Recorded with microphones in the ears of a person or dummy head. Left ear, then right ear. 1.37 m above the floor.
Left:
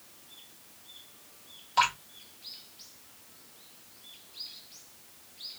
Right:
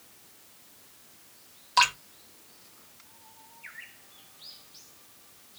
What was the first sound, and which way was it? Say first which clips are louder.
Dripping: right 3 dB; 40° right (ahead or behind).